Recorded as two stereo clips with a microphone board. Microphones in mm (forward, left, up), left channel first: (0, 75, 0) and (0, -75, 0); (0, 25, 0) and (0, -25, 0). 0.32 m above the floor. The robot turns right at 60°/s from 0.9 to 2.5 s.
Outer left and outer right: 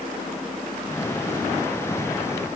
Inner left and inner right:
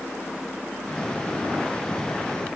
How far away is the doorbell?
I don't hear a doorbell.